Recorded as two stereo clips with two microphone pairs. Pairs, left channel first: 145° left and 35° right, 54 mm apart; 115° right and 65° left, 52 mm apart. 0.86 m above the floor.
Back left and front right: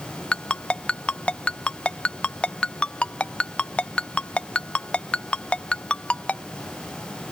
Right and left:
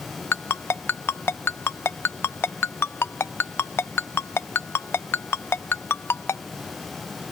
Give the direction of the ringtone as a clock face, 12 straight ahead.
5 o'clock.